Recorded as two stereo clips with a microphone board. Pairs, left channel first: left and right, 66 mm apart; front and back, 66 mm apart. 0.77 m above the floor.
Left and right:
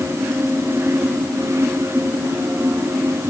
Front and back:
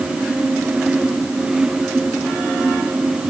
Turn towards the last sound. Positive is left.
No sound to turn to.